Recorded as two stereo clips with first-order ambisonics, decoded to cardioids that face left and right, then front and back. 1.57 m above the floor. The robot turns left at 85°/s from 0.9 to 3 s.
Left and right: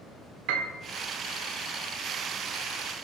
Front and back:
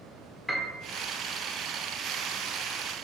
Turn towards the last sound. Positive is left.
turn(degrees=95)